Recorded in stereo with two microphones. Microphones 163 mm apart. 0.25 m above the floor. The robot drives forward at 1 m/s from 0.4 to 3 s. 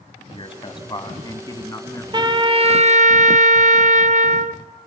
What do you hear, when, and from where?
0.3 s a man speaking: 35° left (ahead or behind), 1.8 m; by 2.0 s 20° left (ahead or behind), 3 m
2.1 s a trumpet: 30° right (ahead or behind), 1.6 m; by 4.6 s 55° right (ahead or behind), 1.0 m